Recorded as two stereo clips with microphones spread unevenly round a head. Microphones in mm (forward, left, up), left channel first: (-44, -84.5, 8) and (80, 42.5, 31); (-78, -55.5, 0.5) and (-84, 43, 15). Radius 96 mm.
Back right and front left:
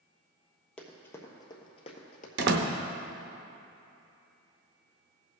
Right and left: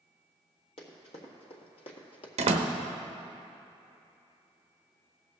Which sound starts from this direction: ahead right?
Running footsteps, at 0.8 s.